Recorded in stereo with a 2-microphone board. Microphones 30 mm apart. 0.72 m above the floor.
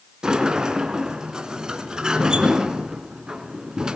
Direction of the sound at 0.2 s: 25° right (ahead or behind).